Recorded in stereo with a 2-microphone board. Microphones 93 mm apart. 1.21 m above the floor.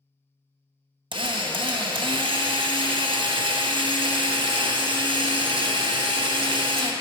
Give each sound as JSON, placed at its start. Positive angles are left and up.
{"t": 1.1, "sound": "a drill", "side_deg": -60, "distance_m": 0.8}